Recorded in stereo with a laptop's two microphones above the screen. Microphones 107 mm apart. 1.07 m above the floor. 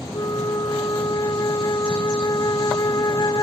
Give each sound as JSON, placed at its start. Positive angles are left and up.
{"t": 0.1, "sound": "a flute", "side_deg": 35}